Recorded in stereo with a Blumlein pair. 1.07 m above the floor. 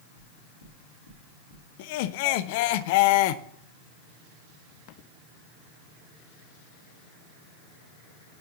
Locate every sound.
0.2 s knocking: 60° left, 2.5 m
1.8 s laughter: 50° left, 0.5 m